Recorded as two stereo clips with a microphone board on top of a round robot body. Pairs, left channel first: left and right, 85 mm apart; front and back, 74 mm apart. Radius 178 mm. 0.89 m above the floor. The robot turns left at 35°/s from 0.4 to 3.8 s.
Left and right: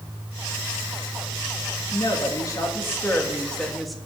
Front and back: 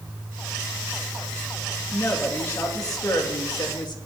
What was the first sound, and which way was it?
A woman speaking, 65° left.